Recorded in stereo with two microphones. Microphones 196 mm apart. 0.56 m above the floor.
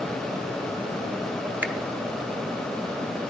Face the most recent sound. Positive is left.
turn(degrees=-10)  # may be behind; listen again after turning